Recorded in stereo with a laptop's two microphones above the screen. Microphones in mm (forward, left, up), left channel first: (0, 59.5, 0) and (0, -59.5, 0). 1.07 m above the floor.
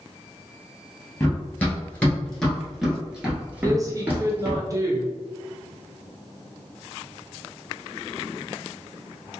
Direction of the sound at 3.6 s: 30° right (ahead or behind).